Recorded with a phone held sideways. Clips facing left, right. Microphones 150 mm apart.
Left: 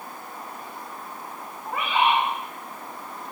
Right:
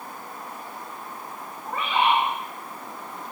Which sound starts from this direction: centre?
A bird, at 1.6 s.